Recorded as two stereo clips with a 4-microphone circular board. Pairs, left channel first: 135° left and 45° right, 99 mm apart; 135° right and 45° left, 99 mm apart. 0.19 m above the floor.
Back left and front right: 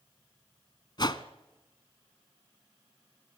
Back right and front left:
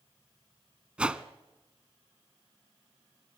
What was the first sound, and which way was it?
A whoosh, 120° left.